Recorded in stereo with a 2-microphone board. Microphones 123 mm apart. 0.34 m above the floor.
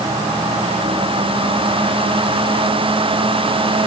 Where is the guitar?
I don't hear a guitar.